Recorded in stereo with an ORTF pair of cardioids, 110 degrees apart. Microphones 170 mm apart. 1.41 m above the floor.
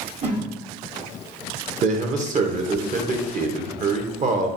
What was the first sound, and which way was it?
A whoosh, 45° right.